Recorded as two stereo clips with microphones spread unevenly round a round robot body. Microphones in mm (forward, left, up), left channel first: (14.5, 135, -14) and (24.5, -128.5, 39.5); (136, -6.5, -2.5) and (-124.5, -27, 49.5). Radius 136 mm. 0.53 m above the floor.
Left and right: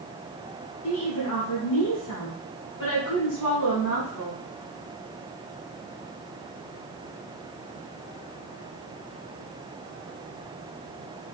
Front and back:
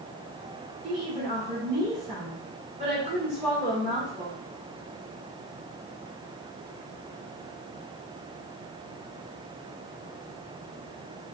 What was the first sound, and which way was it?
A woman speaking, 115° left.